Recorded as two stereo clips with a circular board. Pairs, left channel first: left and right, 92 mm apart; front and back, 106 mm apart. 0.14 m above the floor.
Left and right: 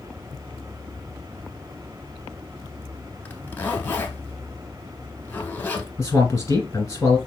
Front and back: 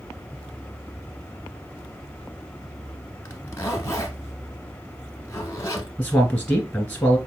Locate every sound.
3.2 s a zipper: 35° left, 0.8 m
6.0 s a man speaking: 70° left, 1.2 m